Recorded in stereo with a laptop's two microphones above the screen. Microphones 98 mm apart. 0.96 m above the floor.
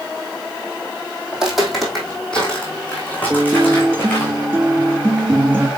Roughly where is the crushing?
No crushing in this recording.